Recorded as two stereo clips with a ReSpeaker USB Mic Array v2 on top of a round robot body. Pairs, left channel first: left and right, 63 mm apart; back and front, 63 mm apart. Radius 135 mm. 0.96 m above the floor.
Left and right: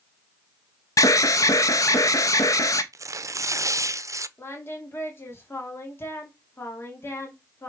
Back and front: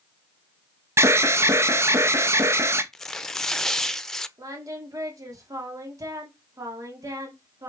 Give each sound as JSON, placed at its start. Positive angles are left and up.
{"t": 1.0, "sound": "an alarm", "azimuth_deg": 50, "distance_m": 0.6}
{"t": 2.9, "sound": "tearing paper", "azimuth_deg": -100, "distance_m": 0.7}
{"t": 4.4, "sound": "singing", "azimuth_deg": 35, "distance_m": 2.0}